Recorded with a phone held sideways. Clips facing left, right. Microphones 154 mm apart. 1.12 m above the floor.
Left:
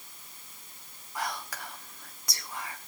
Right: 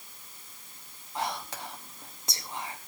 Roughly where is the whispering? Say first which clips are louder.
Right 2 dB; right.